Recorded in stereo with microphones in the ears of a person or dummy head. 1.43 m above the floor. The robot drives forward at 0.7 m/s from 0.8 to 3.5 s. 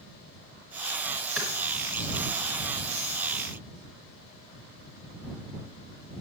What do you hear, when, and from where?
1.4 s a clap: 10° right (ahead or behind), 5 m